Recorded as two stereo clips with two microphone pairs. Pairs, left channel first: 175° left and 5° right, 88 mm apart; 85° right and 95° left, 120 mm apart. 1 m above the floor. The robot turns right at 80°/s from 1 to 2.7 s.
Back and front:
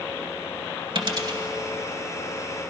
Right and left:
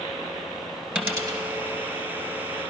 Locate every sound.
0.9 s a dropped coin: 15° left, 1.8 m; by 1.4 s 45° left, 1.8 m